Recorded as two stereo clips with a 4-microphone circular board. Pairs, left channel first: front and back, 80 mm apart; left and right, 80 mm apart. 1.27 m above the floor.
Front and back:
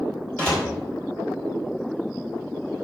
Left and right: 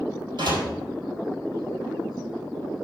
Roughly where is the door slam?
Right.